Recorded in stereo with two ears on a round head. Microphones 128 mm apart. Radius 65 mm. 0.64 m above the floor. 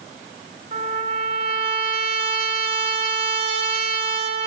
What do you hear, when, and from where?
0.7 s a trumpet: 40° right (ahead or behind), 4 m